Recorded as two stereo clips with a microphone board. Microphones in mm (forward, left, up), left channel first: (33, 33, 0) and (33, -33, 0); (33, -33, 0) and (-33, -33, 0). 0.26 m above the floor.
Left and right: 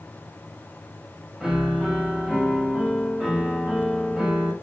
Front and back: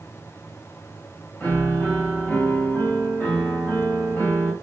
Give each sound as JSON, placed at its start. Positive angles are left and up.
{"t": 1.4, "sound": "a piano", "azimuth_deg": -15, "distance_m": 1.3}